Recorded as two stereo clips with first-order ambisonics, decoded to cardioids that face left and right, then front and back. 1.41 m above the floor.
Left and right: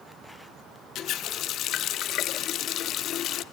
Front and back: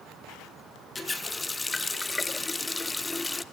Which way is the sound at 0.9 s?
75° left.